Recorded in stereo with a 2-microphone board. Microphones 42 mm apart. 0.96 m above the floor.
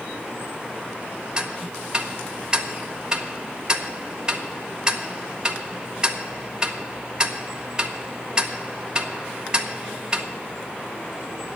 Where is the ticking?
20° right (ahead or behind), 0.8 m.